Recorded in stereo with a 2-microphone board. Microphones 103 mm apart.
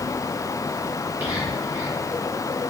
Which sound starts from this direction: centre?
Whispering, at 1.2 s.